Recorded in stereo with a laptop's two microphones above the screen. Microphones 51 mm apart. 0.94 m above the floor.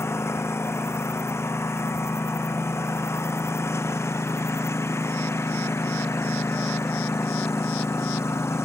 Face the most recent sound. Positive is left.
turn(degrees=60)  # may be behind; listen again after turning